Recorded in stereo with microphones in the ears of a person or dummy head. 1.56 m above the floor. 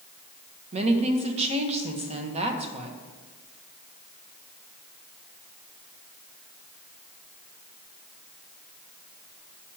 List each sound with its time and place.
0.7 s a woman speaking: 35° right (ahead or behind), 0.9 m